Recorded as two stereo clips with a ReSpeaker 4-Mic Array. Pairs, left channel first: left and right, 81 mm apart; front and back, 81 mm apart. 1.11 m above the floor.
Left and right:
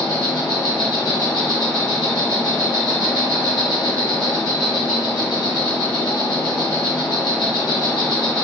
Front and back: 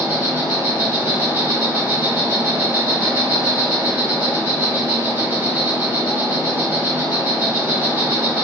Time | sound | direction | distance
0.0 | an insect | 125° left | 1.1 m